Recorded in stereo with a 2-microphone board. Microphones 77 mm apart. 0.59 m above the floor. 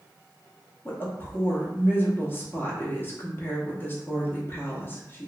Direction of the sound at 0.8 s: 30° left (ahead or behind).